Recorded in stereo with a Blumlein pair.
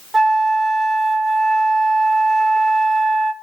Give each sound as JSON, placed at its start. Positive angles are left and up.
{"t": 0.1, "sound": "a flute", "azimuth_deg": -5, "distance_m": 1.0}